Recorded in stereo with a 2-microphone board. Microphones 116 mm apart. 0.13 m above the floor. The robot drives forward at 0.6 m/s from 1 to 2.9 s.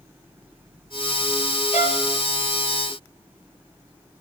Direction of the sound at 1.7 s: 85° left.